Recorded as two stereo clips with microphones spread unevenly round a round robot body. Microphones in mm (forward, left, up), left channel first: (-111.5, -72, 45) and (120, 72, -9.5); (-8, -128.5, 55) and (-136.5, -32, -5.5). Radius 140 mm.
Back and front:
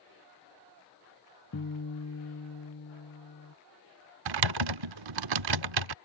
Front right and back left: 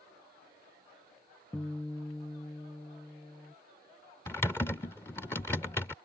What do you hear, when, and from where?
1.5 s a guitar: 115° right
4.3 s typing on a keyboard: 35° left